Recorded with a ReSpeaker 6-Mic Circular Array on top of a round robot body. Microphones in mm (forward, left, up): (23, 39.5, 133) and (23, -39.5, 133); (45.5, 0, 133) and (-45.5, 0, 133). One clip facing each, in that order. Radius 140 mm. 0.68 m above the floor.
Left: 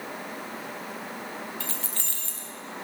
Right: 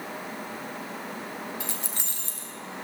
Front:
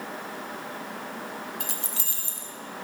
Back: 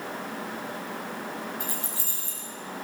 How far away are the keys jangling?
About 1.8 m.